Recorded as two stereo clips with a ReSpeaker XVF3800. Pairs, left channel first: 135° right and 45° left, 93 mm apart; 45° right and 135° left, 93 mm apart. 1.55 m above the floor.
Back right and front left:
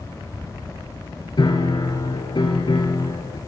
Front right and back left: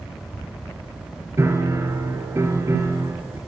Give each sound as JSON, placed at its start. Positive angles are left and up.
{"t": 1.4, "sound": "a piano", "azimuth_deg": -165, "distance_m": 4.5}